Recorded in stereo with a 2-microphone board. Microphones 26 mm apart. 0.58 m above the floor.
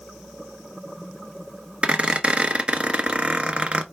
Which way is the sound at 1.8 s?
40° right (ahead or behind).